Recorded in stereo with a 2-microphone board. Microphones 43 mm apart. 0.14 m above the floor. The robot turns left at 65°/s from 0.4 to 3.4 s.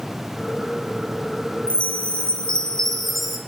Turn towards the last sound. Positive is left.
turn(degrees=-10)